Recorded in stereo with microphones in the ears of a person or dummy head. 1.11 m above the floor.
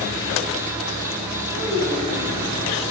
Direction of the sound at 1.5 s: 20° left (ahead or behind).